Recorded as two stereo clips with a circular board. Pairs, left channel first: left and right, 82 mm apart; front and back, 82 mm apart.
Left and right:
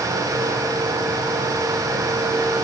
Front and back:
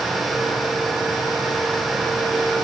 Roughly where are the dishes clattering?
I don't hear dishes clattering.